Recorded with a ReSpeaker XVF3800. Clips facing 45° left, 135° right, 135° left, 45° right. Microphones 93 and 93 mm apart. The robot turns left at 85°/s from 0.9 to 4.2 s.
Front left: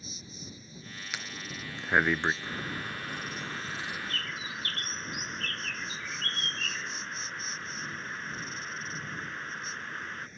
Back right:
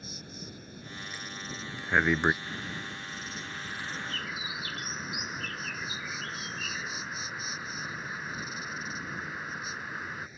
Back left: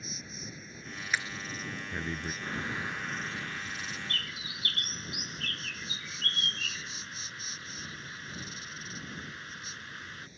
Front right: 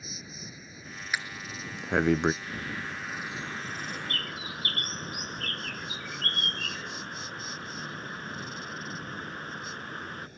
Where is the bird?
95° left; by 10.3 s 55° right.